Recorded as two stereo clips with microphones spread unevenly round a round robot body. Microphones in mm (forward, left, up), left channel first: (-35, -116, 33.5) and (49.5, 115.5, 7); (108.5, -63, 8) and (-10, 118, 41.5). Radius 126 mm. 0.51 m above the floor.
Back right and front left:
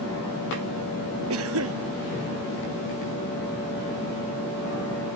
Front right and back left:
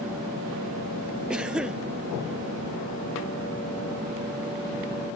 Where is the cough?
35° left.